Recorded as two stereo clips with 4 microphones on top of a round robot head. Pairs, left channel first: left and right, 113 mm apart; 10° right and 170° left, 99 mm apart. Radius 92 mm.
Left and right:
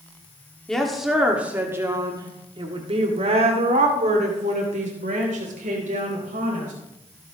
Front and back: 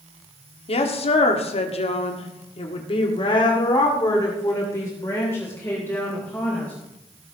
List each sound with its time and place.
0.7 s a woman speaking: 5° left, 1.8 m; by 6.7 s 85° right, 4 m